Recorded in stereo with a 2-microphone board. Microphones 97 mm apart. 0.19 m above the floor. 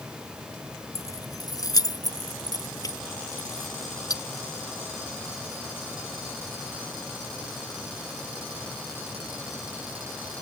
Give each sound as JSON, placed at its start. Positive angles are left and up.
{"t": 0.9, "sound": "keys jangling", "side_deg": 30}